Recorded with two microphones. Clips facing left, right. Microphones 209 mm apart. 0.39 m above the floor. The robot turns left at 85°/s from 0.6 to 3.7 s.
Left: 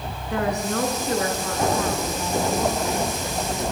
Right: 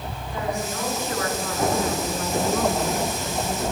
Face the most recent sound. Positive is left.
turn(degrees=175)